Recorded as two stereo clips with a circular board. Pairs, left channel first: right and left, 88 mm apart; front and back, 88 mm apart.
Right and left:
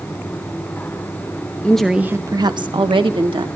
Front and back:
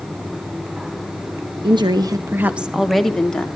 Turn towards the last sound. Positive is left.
turn(degrees=80)